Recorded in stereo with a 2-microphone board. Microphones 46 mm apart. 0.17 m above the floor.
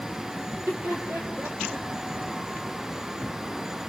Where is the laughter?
75° right (ahead or behind), 6 m; by 1.9 s 60° right (ahead or behind), 5 m.